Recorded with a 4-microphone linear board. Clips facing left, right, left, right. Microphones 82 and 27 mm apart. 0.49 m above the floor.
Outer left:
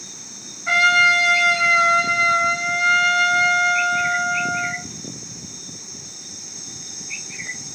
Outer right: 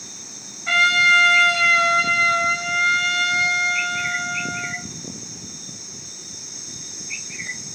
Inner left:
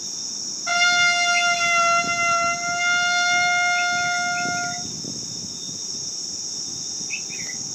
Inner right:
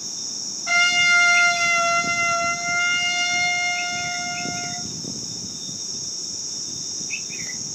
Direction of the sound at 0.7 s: 10° left (ahead or behind).